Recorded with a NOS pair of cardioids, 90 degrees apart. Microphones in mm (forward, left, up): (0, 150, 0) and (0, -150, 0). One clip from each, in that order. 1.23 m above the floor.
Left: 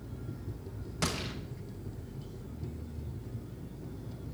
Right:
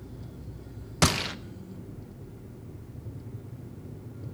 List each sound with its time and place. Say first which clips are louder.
1.0 s a gunshot: right 9 dB; 55° right, 0.8 m